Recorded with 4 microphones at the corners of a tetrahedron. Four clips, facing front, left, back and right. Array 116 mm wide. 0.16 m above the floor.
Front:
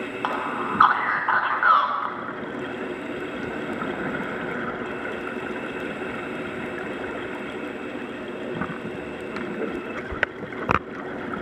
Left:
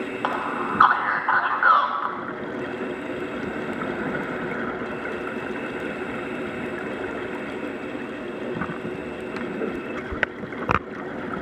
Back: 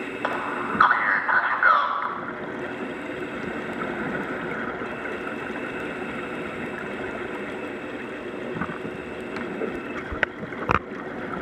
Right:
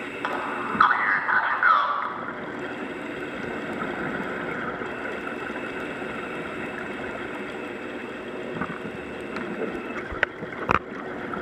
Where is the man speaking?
50° left, 1.5 m.